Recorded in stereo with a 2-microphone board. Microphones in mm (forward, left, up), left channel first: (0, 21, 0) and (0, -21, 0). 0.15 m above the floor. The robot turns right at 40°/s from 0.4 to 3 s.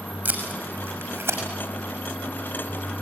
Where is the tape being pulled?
40° right (ahead or behind), 6 m; by 1.4 s 80° right, 6 m.